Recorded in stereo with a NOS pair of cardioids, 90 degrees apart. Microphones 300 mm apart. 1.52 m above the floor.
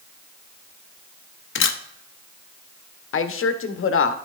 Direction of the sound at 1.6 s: 40° left.